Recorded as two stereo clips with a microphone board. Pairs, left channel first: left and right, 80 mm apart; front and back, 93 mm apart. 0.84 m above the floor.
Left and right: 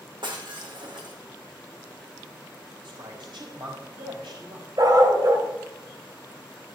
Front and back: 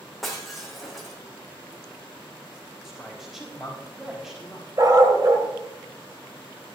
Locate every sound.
0.2 s breaking glass: 90° right, 3 m
2.8 s a man speaking: 95° right, 5 m
4.8 s a dog barking: 130° right, 1.9 m